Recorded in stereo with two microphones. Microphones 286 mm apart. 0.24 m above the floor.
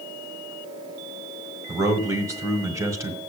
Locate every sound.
1.7 s a man speaking: 10° right (ahead or behind), 1.4 m